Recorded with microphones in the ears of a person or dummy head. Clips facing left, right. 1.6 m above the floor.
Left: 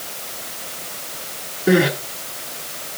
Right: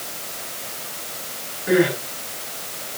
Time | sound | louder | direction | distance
1.7 | crying | left 2 dB | 55° left (ahead or behind) | 8 m